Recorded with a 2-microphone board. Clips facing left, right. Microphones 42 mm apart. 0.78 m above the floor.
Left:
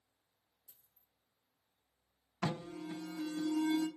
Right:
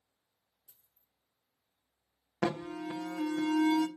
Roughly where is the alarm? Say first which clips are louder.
Right 6 dB; right.